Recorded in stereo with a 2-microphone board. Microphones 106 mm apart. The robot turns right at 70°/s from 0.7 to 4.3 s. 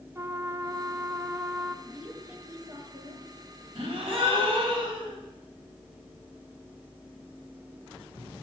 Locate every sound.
0.1 s a trumpet: 25° right (ahead or behind), 0.8 m; by 1.8 s centre (ahead or behind), 0.8 m
1.9 s a woman speaking: 165° left, 2 m; by 3.3 s 95° right, 2 m
3.8 s a gasp: 110° right, 2.5 m; by 5.2 s 70° right, 2.5 m